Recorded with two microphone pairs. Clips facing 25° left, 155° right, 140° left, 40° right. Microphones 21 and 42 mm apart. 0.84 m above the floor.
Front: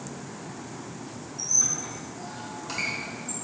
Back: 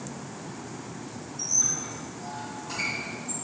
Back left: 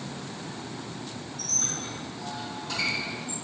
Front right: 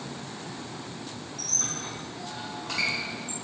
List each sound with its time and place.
1.4 s a squeak: 20° right, 1.5 m